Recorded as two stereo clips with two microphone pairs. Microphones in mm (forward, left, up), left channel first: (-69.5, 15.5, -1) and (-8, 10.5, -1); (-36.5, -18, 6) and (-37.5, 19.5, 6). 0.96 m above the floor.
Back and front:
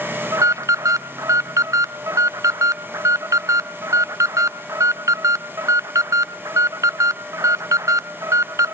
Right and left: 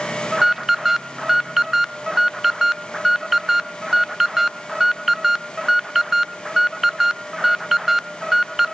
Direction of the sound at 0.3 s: 10° left.